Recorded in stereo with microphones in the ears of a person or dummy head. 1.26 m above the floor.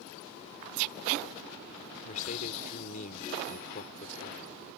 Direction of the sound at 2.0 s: 35° left (ahead or behind).